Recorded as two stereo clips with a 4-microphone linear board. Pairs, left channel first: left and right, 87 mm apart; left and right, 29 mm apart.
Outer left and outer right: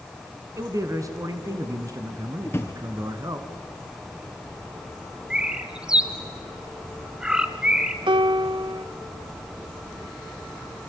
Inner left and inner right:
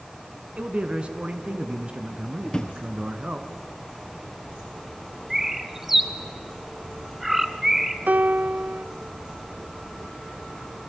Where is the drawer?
25° left (ahead or behind), 2.5 m.